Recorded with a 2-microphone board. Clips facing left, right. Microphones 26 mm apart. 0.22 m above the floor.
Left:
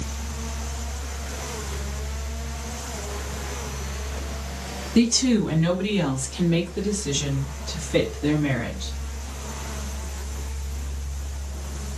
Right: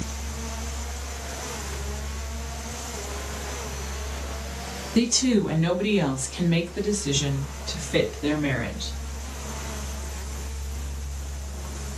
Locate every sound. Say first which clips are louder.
5.0 s a woman speaking: left 2 dB; centre (ahead or behind), 1.7 m; by 8.9 s 30° right (ahead or behind), 2 m